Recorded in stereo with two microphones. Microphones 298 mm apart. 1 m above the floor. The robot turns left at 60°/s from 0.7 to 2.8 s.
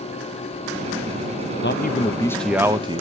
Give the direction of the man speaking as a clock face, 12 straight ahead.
10 o'clock.